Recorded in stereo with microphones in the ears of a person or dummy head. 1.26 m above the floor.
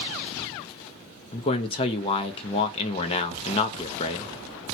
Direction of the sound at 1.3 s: 25° left (ahead or behind).